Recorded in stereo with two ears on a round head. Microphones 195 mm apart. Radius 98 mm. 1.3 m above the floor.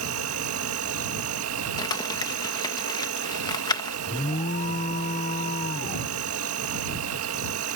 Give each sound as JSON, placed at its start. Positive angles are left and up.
{"t": 0.0, "sound": "an insect", "side_deg": -75}
{"t": 1.8, "sound": "crumpling", "side_deg": 20}
{"t": 4.1, "sound": "an alarm", "side_deg": 35}